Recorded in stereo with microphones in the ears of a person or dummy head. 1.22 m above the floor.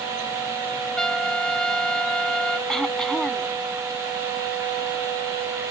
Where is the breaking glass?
No breaking glass in this recording.